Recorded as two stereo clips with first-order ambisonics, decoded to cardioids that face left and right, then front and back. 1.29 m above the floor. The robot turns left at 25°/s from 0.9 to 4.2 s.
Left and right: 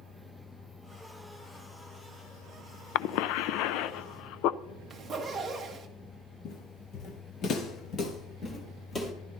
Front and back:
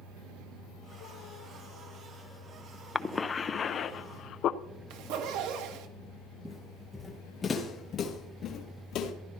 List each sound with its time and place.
3.0 s a cough: 80° left, 0.5 m; by 4.6 s 50° left, 0.5 m
4.9 s a zipper: 165° right, 1.5 m
6.5 s footsteps: 90° left, 1.7 m; by 9.1 s 20° left, 1.9 m